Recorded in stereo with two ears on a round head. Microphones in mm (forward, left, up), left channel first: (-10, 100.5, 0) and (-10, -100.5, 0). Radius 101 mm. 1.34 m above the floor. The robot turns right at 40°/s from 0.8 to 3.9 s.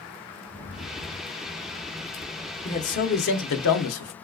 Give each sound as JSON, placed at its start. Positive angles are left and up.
{"t": 0.4, "sound": "a rattle", "azimuth_deg": 85, "distance_m": 1.6}
{"t": 2.6, "sound": "a man speaking", "azimuth_deg": 25, "distance_m": 0.7}